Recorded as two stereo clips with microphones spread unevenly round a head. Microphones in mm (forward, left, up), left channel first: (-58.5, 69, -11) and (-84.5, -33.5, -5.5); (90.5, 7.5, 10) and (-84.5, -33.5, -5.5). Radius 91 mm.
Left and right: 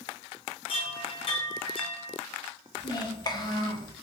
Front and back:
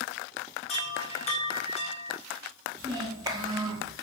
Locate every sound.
0.7 s a chime: 55° left, 0.7 m
2.8 s a child speaking: 120° left, 0.9 m